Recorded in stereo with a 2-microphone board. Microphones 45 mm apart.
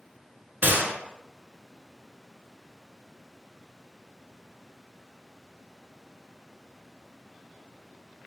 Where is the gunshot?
50° right (ahead or behind), 0.9 m.